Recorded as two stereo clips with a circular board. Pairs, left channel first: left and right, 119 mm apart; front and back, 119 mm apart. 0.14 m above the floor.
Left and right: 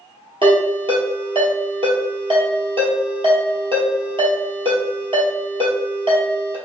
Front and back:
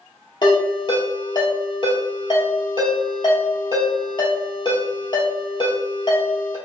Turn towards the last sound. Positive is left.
turn(degrees=-50)